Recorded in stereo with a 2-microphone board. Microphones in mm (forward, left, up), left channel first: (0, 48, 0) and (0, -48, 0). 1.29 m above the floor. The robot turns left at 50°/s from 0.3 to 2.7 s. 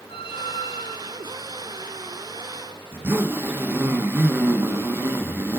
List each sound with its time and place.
0.1 s a squeak: 100° left, 5 m; by 1.3 s 50° left, 5 m
2.9 s a zipper: 20° right (ahead or behind), 1.0 m